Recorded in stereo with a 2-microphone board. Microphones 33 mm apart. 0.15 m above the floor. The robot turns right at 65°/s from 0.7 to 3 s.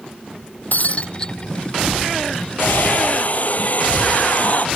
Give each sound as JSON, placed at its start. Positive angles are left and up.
{"t": 0.7, "sound": "breaking glass", "azimuth_deg": 120}
{"t": 2.6, "sound": "a hair dryer", "side_deg": 70}